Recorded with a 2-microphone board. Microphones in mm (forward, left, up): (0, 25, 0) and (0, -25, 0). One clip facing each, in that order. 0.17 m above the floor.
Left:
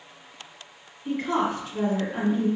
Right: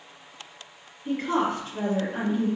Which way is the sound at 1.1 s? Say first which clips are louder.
Even; 5° left (ahead or behind).